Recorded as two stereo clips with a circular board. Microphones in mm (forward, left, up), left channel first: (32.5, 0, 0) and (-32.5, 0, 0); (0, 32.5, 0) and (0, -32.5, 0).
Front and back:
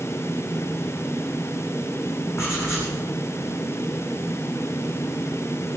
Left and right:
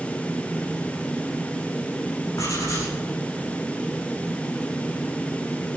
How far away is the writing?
About 8.5 m.